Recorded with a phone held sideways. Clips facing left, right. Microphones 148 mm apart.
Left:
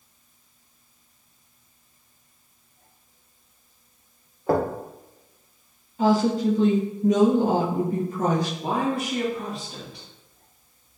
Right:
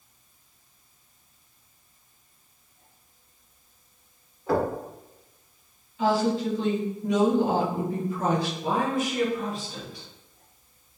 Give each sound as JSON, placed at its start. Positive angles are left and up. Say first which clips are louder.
{"t": 4.5, "sound": "knocking", "louder": "left 2 dB", "side_deg": 45, "distance_m": 0.6}
{"t": 6.0, "sound": "a woman speaking", "louder": "left 3 dB", "side_deg": 45, "distance_m": 0.6}
{"t": 8.6, "sound": "a woman speaking", "louder": "left 1 dB", "side_deg": 65, "distance_m": 1.7}